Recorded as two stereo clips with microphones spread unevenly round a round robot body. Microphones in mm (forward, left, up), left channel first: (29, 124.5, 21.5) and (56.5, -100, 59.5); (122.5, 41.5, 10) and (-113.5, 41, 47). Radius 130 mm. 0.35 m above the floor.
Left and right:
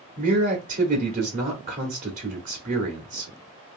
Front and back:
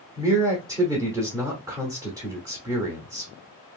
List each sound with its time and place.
0.2 s a man speaking: 100° right, 1.0 m